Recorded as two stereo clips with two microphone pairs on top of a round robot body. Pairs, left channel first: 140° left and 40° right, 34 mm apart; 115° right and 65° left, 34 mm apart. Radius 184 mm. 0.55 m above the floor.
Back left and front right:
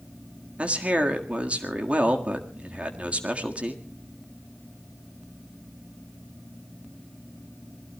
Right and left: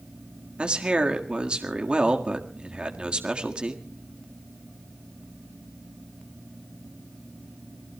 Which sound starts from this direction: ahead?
A man speaking, at 0.6 s.